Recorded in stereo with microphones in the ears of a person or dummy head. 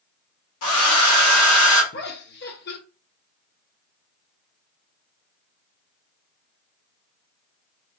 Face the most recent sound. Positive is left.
turn(degrees=50)  # may be behind; listen again after turning